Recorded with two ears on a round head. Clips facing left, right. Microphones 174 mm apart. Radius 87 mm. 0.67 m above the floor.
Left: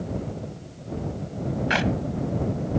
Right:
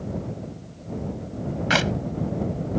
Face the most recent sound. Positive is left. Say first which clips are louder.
# right 1 dB
turn(degrees=-60)  # may be behind; listen again after turning